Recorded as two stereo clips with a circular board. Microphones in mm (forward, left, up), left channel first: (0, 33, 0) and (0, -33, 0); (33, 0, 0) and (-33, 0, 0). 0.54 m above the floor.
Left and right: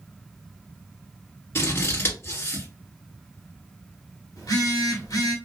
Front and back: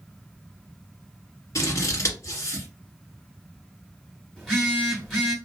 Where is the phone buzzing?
85° left, 2 m.